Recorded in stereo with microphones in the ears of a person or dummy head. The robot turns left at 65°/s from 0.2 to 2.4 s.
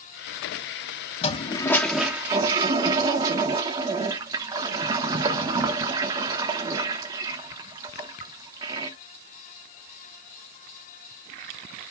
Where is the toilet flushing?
45° left, 0.8 m; by 9.0 s 35° right, 0.8 m.